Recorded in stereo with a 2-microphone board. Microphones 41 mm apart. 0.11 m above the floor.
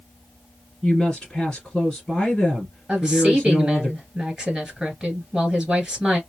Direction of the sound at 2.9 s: 15° right (ahead or behind).